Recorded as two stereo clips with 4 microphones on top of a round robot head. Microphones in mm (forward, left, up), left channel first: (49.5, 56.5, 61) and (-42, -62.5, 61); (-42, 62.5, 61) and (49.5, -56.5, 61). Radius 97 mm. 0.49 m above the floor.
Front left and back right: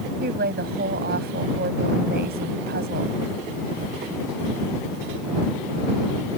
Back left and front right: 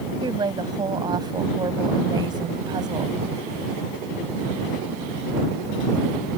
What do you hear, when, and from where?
0.2 s a woman speaking: 115° right